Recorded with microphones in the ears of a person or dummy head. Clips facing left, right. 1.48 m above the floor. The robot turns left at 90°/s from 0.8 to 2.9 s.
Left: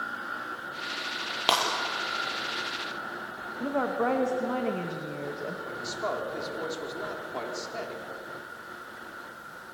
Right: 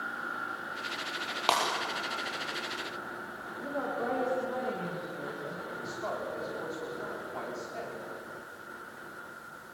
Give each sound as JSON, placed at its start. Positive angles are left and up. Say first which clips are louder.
{"t": 1.5, "sound": "breaking glass", "louder": "left 1 dB", "side_deg": 15, "distance_m": 5.0}
{"t": 3.6, "sound": "a woman speaking", "louder": "left 6 dB", "side_deg": 85, "distance_m": 2.0}
{"t": 5.7, "sound": "a man speaking", "louder": "left 4 dB", "side_deg": 60, "distance_m": 4.5}